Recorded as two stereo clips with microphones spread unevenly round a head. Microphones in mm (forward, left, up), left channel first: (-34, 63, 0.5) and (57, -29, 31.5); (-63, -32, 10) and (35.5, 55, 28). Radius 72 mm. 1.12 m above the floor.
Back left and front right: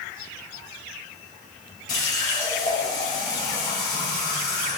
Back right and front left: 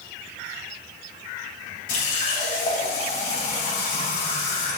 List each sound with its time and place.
1.9 s a running tap: 160° right, 3.5 m